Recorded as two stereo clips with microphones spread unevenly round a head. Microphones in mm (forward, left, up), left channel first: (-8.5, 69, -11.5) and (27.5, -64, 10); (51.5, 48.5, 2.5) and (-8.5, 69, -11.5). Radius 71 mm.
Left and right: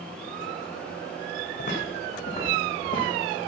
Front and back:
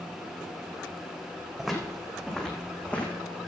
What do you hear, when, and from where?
1.6 s footsteps: 70° left, 4 m; by 3.1 s 45° left, 4 m